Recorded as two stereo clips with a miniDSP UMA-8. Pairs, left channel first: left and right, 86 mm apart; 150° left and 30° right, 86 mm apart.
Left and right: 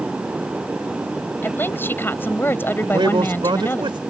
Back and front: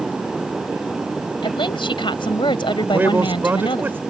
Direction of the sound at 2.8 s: 95° right.